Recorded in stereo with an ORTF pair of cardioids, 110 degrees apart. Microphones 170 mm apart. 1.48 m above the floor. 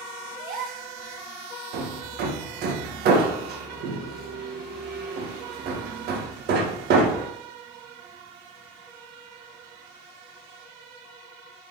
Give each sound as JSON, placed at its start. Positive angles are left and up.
{"t": 0.4, "sound": "a gasp", "azimuth_deg": -60, "distance_m": 1.3}
{"t": 1.7, "sound": "hammering", "azimuth_deg": -70, "distance_m": 1.6}